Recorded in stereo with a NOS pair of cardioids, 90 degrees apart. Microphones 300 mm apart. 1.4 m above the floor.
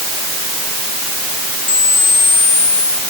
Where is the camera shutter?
35° left.